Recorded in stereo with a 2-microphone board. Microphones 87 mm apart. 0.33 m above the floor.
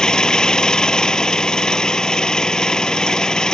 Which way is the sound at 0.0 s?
10° left (ahead or behind).